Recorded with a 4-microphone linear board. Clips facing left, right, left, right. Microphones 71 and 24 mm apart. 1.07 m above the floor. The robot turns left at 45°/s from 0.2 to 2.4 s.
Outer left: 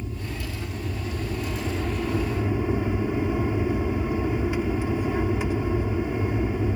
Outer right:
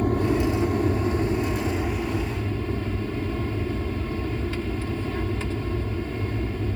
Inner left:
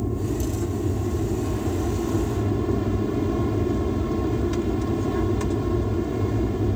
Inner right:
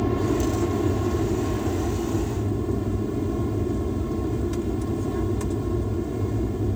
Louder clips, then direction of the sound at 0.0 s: Outer right 13 dB, inner right 4 dB; 100° right.